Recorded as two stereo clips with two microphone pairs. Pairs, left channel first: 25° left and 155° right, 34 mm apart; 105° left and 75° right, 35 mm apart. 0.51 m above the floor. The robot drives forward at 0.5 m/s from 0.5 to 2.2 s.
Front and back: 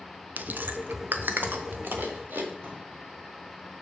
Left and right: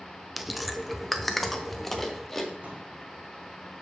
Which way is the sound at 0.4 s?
165° right.